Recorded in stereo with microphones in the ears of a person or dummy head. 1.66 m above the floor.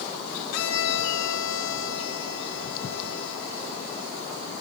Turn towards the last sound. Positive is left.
turn(degrees=70)  # may be behind; listen again after turning